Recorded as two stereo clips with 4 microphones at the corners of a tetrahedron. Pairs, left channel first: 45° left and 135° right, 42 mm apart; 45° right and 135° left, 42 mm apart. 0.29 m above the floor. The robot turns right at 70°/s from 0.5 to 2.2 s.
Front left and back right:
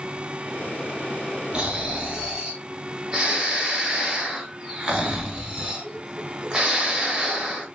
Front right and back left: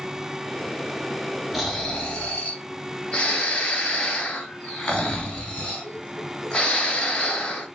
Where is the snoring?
140° right, 0.7 m; by 7.7 s 90° right, 0.7 m.